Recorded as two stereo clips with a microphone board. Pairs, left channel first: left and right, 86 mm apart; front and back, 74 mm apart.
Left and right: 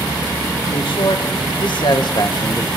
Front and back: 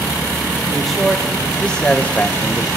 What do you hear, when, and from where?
0.7 s a man speaking: 90° left, 2.0 m; by 2.7 s 50° left, 1.3 m